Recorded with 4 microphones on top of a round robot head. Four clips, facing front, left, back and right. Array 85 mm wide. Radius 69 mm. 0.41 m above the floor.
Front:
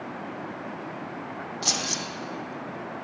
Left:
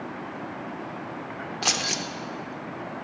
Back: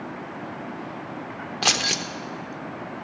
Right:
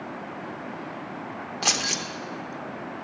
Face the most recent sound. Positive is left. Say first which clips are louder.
# right 1 dB, back 7 dB
turn(degrees=-175)